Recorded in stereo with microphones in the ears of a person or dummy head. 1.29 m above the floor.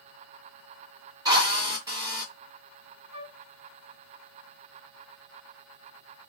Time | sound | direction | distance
1.2 | a drill | 20° right (ahead or behind) | 1.2 m
3.1 | a flute | 30° right (ahead or behind) | 1.5 m